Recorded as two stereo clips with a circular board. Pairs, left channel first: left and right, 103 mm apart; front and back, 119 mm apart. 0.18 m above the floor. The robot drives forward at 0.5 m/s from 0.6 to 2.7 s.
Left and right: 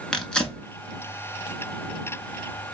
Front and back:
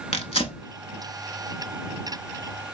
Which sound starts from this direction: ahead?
Tearing paper, at 0.1 s.